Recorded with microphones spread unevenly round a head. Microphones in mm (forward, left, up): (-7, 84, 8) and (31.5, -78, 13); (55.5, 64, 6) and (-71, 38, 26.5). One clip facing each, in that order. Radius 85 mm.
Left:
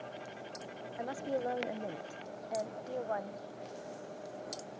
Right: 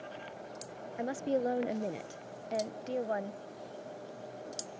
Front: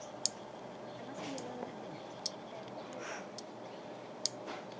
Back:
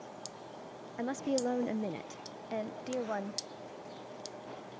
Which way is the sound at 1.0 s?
140° right.